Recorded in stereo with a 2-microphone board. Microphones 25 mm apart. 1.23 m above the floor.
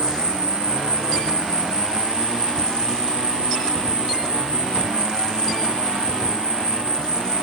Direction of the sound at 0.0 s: 70° right (ahead or behind).